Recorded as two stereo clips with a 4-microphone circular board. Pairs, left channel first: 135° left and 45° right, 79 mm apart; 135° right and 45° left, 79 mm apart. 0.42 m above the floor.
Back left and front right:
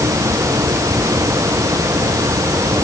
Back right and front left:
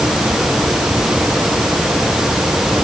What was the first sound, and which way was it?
Only background noise.